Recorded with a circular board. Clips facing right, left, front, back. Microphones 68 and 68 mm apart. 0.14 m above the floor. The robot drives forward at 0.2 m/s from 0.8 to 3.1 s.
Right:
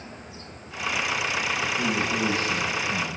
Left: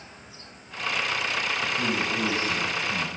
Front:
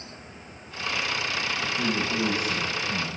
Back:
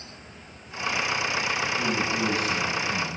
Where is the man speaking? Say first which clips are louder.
Right 1 dB, back 1 dB; 55° left, 1.3 m; by 3.1 s 75° left, 1.3 m.